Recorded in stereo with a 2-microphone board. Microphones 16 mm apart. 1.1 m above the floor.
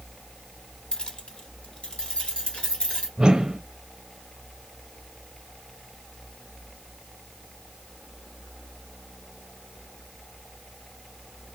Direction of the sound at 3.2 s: 60° right (ahead or behind).